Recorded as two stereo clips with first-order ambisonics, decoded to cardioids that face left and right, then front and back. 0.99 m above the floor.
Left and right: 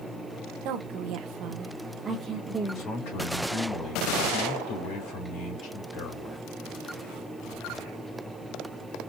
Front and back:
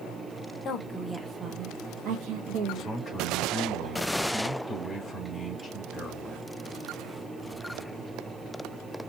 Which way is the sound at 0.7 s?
60° right.